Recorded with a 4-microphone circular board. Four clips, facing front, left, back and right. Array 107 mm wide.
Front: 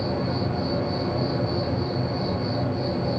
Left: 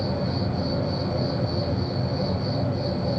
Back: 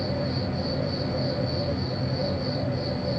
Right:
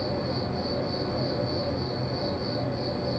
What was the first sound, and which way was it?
An insect, 40° left.